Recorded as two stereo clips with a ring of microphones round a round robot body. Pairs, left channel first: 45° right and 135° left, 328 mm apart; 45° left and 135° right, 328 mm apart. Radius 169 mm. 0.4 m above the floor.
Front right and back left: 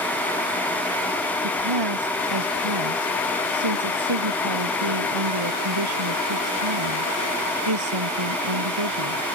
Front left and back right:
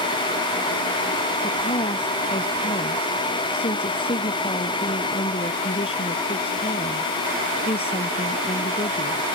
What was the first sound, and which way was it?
A woman speaking, 120° left.